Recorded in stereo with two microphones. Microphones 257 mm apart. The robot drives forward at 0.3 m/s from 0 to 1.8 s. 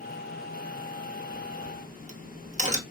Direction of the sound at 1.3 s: 30° right (ahead or behind).